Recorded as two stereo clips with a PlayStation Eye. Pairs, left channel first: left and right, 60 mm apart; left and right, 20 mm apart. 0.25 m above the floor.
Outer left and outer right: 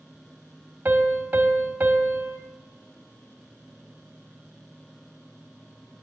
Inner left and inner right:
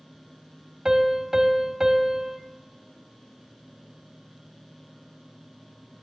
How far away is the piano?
About 0.8 m.